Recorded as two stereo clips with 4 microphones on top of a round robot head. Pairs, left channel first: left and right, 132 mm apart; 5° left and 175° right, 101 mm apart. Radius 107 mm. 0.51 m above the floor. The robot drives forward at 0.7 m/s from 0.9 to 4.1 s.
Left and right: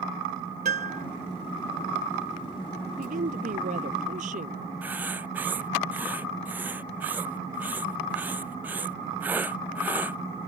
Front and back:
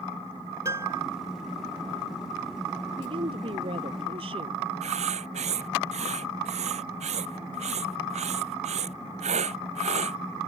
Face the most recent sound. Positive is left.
turn(degrees=-170)